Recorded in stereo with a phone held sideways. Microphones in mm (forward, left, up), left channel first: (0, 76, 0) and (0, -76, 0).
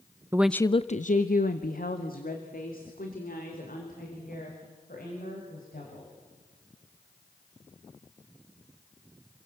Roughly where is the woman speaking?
Centre.